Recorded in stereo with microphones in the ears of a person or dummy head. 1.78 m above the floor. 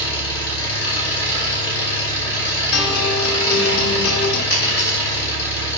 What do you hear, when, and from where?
0.0 s an engine running: 70° left (ahead or behind), 3 m
2.7 s a guitar: 50° left (ahead or behind), 1.2 m
4.5 s a dropped coin: 55° left (ahead or behind), 3 m